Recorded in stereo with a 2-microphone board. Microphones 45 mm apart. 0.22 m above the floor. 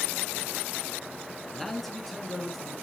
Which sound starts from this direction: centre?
A man speaking, at 1.5 s.